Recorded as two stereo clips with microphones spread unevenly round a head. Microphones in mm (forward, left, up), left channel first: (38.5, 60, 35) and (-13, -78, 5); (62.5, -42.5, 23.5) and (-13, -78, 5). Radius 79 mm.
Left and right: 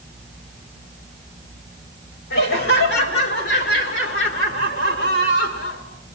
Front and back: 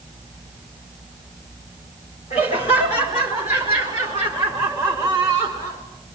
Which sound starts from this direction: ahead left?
Laughter, at 2.3 s.